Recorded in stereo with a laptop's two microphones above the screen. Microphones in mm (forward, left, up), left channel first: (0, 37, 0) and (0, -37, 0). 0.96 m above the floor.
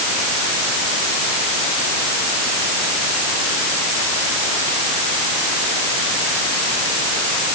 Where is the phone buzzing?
I don't hear a phone buzzing.